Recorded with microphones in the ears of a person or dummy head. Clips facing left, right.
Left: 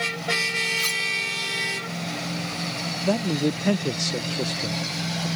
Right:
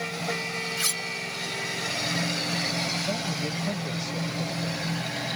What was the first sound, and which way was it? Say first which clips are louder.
Cutlery clinking: left 2 dB; 5° right (ahead or behind).